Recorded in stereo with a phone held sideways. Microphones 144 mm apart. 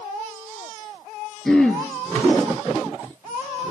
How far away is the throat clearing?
About 4 m.